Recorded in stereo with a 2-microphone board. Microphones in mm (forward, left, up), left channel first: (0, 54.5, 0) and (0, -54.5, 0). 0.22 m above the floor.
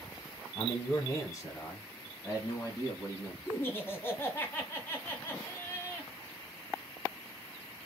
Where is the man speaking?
25° left (ahead or behind), 1.6 m; by 3.4 s 30° left (ahead or behind), 2 m.